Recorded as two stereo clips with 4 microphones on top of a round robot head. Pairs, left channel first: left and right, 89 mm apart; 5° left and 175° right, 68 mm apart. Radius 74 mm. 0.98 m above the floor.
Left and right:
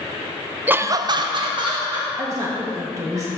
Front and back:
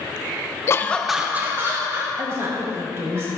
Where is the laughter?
25° right, 0.6 m; by 3.2 s 135° right, 2.5 m.